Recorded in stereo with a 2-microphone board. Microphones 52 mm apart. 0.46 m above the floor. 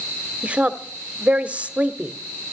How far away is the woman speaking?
About 0.9 m.